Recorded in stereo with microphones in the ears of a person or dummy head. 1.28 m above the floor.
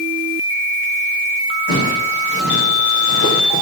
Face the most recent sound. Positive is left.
turn(degrees=65)  # may be behind; listen again after turning